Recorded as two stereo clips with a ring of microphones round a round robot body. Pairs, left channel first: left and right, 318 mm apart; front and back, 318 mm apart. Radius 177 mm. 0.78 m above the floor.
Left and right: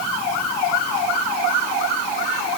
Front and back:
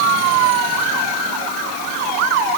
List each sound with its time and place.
Only background noise.